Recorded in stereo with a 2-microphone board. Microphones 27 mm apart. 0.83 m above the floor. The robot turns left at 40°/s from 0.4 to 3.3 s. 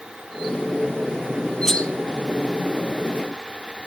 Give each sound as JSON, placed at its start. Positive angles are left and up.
{"t": 1.6, "sound": "cutlery clinking", "side_deg": 10, "distance_m": 0.9}